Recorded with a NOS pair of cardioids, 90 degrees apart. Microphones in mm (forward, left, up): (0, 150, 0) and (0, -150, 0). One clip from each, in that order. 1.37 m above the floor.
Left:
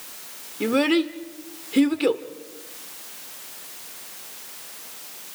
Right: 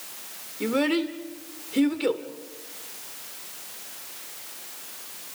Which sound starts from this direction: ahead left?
A child speaking, at 0.6 s.